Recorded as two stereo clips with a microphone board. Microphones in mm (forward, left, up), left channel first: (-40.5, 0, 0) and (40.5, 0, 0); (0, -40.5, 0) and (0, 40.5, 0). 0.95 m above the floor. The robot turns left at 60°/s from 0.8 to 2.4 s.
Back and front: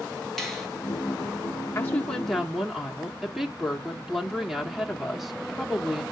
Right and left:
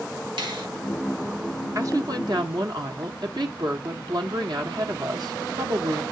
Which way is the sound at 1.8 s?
125° left.